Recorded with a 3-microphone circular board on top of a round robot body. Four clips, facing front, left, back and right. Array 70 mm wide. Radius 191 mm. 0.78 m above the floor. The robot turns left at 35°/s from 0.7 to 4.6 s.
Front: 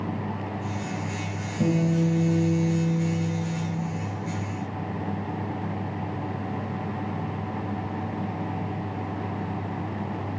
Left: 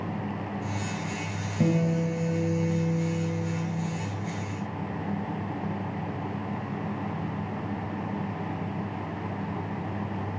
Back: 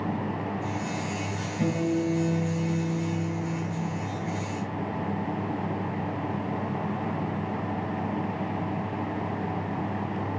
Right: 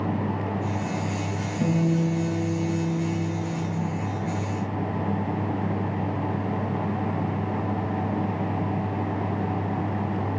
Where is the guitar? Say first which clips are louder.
Right 2 dB, front 3 dB; 75° left, 0.9 m; by 3.5 s 10° left, 0.9 m.